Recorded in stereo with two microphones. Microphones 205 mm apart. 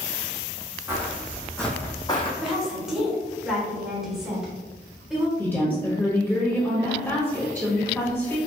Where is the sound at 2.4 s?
5° right (ahead or behind), 1.3 m.